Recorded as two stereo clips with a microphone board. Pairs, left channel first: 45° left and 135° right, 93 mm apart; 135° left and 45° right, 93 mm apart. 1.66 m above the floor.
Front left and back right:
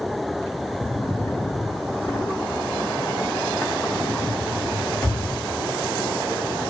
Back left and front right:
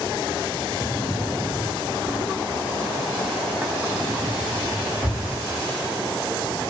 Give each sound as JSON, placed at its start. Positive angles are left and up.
{"t": 0.8, "sound": "a drawer", "azimuth_deg": 10, "distance_m": 1.2}